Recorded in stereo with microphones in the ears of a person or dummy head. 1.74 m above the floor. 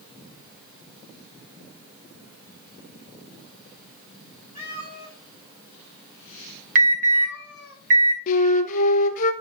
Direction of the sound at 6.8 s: 40° right (ahead or behind).